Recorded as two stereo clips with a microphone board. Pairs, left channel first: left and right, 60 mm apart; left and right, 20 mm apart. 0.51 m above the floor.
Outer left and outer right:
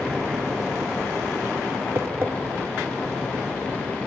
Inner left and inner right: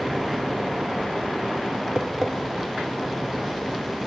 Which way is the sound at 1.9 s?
40° right (ahead or behind).